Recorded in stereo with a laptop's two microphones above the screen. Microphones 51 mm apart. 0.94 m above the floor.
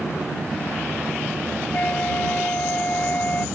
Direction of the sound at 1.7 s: 30° left (ahead or behind).